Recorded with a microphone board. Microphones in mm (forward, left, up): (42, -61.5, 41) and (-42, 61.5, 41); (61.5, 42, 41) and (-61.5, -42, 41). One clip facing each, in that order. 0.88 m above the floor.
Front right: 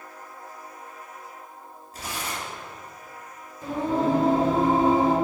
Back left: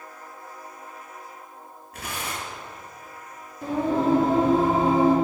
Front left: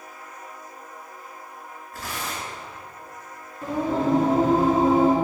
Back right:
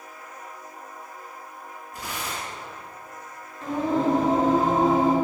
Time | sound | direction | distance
1.9 | tearing paper | 145° left | 2 m
3.6 | singing | 115° left | 2.5 m